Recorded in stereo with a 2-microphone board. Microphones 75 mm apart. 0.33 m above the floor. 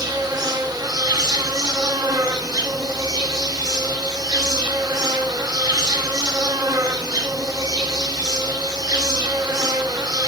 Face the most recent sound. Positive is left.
turn(degrees=-60)  # may be behind; listen again after turning